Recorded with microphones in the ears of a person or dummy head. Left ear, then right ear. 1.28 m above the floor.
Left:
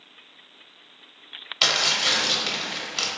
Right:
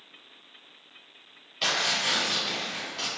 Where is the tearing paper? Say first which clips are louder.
Left 5 dB; 35° left (ahead or behind), 0.9 m.